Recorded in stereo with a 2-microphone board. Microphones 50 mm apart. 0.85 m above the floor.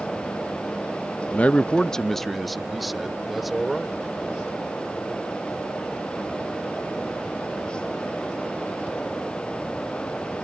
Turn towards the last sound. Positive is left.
turn(degrees=-5)  # may be behind; listen again after turning